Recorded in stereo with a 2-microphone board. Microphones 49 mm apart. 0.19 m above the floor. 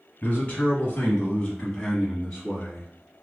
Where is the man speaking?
30° left (ahead or behind), 1.2 m; by 3.2 s 5° right (ahead or behind), 1.8 m.